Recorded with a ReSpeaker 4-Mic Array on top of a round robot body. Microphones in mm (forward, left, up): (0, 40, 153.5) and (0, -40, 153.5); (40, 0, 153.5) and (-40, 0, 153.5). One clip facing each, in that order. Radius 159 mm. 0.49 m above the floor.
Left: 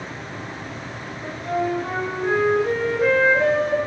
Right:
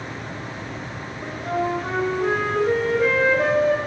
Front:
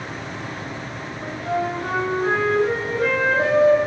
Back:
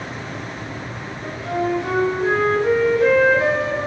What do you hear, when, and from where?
1.2 s a flute: 50° right, 0.9 m